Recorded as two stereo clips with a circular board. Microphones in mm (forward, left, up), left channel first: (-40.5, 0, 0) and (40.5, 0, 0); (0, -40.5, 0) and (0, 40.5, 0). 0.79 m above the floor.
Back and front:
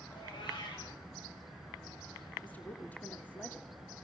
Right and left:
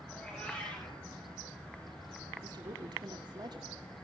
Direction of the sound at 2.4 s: 110° left.